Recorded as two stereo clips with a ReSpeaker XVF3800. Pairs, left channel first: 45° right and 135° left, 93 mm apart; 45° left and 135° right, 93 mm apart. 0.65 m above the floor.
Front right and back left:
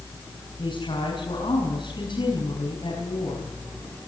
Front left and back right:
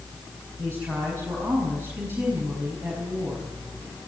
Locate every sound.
0.6 s a woman speaking: 70° right, 5.5 m